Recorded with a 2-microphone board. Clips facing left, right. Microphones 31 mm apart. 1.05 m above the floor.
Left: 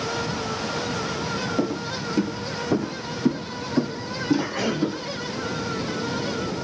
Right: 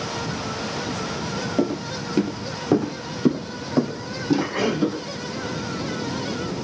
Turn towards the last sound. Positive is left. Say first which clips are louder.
# right 6 dB
turn(degrees=-25)  # may be behind; listen again after turning